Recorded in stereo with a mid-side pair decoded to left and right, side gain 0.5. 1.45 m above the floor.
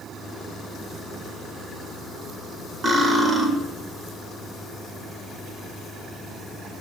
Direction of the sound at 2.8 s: 40° right.